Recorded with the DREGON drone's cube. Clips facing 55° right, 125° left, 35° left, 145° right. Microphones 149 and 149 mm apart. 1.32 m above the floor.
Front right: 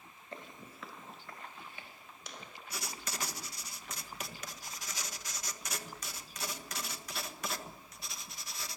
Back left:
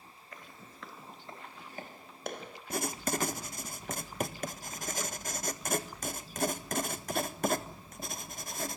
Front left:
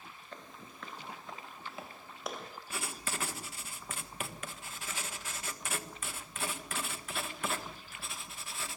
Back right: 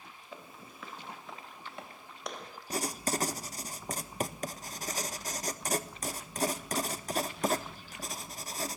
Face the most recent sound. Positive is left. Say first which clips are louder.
# back left 11 dB, back right 9 dB
turn(degrees=165)